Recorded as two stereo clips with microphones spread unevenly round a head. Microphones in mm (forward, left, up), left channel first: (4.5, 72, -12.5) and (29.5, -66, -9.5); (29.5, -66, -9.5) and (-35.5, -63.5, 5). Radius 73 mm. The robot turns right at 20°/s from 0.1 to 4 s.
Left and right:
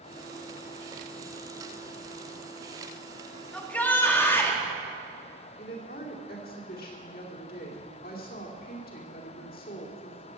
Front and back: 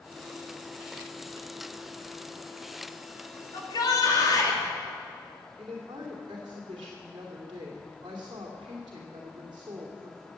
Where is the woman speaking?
130° left, 2.5 m.